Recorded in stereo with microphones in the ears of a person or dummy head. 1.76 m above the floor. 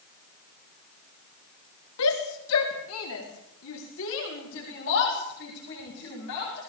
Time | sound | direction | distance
2.0 | a shout | 85° left | 4 m